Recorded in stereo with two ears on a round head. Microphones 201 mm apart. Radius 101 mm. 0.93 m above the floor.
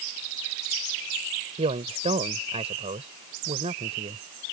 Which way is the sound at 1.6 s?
30° right (ahead or behind).